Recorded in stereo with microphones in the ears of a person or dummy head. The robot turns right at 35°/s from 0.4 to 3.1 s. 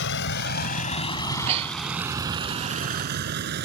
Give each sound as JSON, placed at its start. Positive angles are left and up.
{"t": 0.0, "sound": "a vehicle", "side_deg": 60}
{"t": 1.2, "sound": "breathing", "side_deg": -40}